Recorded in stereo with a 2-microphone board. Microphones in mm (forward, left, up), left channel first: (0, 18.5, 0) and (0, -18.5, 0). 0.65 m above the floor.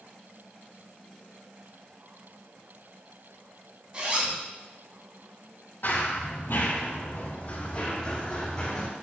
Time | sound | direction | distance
3.9 | a zipper | 35° right (ahead or behind) | 3 m
5.8 | running footsteps | 55° left (ahead or behind) | 1.6 m